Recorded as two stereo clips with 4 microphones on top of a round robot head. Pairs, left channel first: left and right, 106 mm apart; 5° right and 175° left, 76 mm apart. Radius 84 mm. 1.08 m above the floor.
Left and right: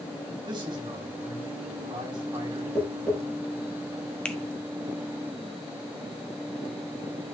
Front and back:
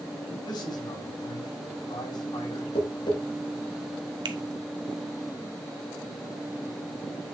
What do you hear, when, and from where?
0.5 s a man speaking: 35° right, 3 m
2.8 s tapping: 5° left, 4 m
4.2 s a finger snap: 170° left, 1.2 m